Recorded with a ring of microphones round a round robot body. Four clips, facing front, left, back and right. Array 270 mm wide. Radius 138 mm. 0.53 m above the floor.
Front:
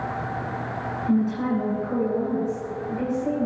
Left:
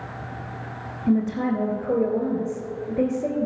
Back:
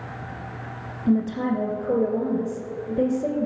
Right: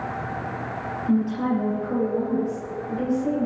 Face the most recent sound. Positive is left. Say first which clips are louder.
# left 1 dB, back 1 dB
turn(degrees=135)